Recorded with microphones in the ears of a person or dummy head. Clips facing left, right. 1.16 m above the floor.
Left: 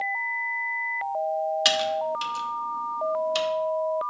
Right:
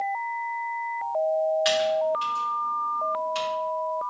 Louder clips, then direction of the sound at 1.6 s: Right 3 dB; 60° left (ahead or behind).